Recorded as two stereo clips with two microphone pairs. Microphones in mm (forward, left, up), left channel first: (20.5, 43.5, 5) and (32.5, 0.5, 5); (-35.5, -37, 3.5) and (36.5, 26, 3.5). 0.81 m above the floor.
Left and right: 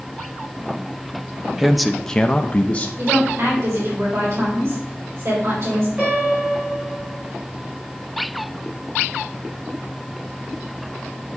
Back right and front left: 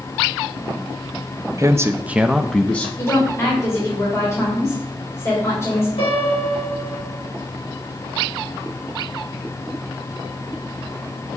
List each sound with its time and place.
1.6 s a man speaking: 5° left, 0.6 m; by 2.9 s 150° left, 0.6 m
3.0 s a woman speaking: 80° right, 4.5 m
6.0 s a piano: 135° right, 5 m